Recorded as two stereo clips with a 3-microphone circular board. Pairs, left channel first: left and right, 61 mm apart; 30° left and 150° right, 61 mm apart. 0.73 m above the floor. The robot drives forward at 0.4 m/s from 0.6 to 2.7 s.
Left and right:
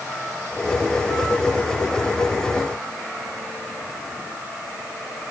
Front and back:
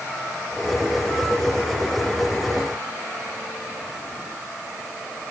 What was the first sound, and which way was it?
Only background noise.